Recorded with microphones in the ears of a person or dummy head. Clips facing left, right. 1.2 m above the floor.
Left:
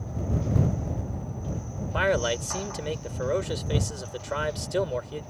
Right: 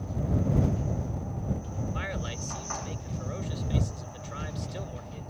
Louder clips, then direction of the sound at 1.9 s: Left 12 dB; 85° left.